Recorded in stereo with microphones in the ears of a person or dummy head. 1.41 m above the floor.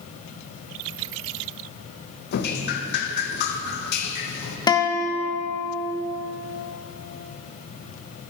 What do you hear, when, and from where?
2.3 s dripping: 60° left (ahead or behind), 1.1 m
4.7 s a guitar: 25° left (ahead or behind), 1.1 m